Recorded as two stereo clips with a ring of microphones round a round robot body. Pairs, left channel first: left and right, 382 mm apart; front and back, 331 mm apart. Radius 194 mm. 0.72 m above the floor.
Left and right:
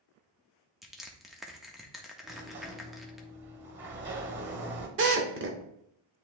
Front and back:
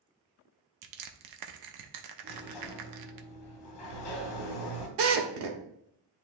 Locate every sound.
0.8 s crushing: straight behind, 0.9 m
2.2 s a sliding door: 30° right, 1.3 m
5.0 s a drill: 150° right, 1.0 m